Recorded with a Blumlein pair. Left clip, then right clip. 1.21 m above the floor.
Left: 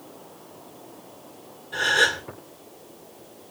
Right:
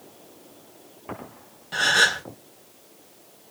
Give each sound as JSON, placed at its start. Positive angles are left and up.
{"t": 1.7, "sound": "a gasp", "azimuth_deg": -55, "distance_m": 1.3}